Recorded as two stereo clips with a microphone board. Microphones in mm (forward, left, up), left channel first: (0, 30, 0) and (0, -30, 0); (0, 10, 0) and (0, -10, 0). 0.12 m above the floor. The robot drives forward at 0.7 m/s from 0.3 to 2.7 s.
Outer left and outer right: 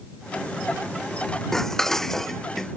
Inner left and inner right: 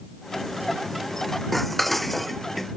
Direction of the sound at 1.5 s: 5° left (ahead or behind).